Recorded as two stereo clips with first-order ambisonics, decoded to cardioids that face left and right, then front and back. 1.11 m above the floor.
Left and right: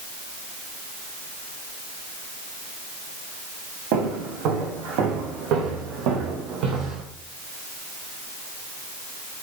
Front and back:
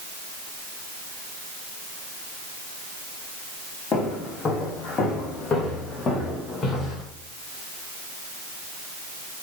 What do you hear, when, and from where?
3.9 s footsteps: 70° right, 4.5 m; by 7.0 s 75° right, 3 m